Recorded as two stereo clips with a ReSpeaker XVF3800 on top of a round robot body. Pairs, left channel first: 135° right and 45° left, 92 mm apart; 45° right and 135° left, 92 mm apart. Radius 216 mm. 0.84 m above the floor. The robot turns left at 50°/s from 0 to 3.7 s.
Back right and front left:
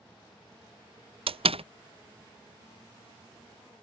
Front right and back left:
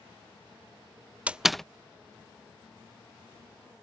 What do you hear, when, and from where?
1.3 s a door slam: 60° left; by 1.6 s 40° left